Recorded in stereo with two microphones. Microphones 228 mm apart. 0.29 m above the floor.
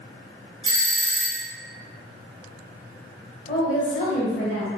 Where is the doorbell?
20° right (ahead or behind), 1.7 m.